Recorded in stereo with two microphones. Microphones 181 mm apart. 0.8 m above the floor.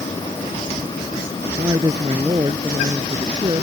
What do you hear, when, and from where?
1.6 s a woman speaking: 20° right (ahead or behind)